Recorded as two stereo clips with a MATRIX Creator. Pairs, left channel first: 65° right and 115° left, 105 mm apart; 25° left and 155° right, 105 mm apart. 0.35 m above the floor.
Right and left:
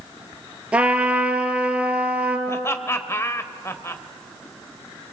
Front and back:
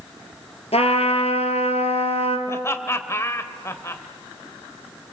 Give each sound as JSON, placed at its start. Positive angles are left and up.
{"t": 0.7, "sound": "a trumpet", "azimuth_deg": 35, "distance_m": 3.0}
{"t": 2.5, "sound": "laughter", "azimuth_deg": -20, "distance_m": 1.5}